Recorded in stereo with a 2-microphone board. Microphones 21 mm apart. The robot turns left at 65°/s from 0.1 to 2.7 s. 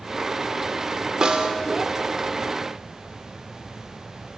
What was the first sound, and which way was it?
A snare drum, 35° right (ahead or behind).